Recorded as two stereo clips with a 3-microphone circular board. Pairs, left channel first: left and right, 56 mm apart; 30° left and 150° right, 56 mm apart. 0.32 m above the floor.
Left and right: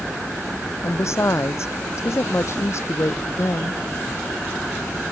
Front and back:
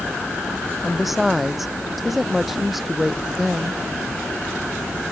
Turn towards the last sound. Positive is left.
turn(degrees=120)